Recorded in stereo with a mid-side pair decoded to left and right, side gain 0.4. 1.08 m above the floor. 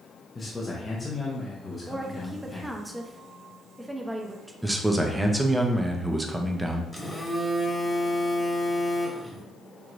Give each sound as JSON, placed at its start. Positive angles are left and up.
{"t": 0.3, "sound": "a man speaking", "azimuth_deg": 30, "distance_m": 1.0}
{"t": 1.9, "sound": "a woman speaking", "azimuth_deg": -10, "distance_m": 0.9}
{"t": 4.6, "sound": "a man speaking", "azimuth_deg": -10, "distance_m": 0.8}
{"t": 6.9, "sound": "a phone buzzing", "azimuth_deg": 10, "distance_m": 1.6}